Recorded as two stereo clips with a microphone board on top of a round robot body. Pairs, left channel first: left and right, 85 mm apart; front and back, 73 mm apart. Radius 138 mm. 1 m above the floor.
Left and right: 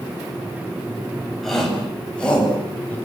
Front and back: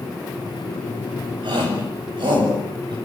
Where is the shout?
175° left, 8 m; by 3.0 s 165° left, 8.5 m.